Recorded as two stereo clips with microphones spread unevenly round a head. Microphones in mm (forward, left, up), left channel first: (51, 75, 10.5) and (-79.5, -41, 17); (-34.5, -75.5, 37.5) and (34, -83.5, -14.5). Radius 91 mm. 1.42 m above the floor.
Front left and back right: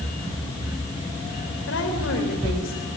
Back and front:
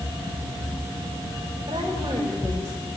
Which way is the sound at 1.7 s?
50° left.